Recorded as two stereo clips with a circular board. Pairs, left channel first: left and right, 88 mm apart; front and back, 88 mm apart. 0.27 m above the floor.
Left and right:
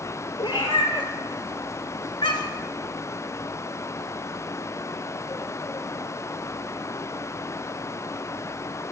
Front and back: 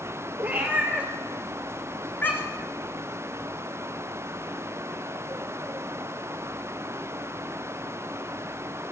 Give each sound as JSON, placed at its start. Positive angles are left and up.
{"t": 0.4, "sound": "a cat meowing", "azimuth_deg": 110, "distance_m": 1.4}